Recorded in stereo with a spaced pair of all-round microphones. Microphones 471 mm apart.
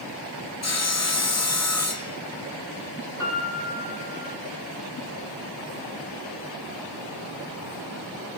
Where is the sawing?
35° left (ahead or behind), 0.6 m.